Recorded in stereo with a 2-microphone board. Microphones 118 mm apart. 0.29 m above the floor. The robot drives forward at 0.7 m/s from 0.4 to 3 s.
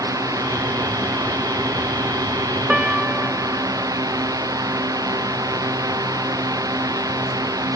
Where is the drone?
30° right (ahead or behind).